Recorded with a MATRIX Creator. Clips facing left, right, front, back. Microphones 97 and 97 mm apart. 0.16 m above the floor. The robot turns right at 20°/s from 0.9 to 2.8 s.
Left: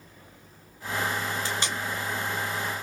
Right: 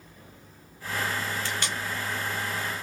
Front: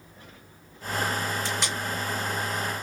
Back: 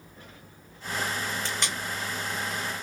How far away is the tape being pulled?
About 1.7 m.